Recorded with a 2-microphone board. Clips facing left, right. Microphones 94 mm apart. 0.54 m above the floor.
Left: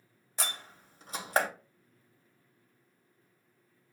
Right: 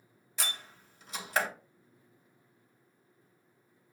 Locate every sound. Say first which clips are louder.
0.4 s a door slam: left 1 dB; 40° left (ahead or behind), 0.8 m